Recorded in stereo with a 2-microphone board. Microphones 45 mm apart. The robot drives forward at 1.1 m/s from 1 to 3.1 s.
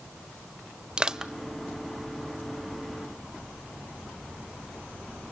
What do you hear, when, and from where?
1.0 s crushing: 20° right (ahead or behind), 0.6 m; by 1.3 s 15° right (ahead or behind), 0.9 m